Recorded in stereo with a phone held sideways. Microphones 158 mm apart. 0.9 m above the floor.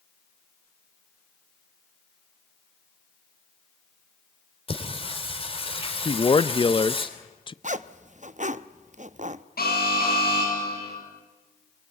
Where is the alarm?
75° left (ahead or behind), 9 m.